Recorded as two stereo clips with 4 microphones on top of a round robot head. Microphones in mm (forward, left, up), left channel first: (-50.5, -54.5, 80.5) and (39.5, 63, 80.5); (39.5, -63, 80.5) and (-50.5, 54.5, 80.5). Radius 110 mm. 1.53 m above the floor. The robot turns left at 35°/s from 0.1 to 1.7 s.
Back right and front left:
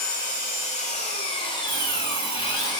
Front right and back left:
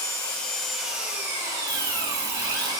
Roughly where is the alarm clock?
Behind left.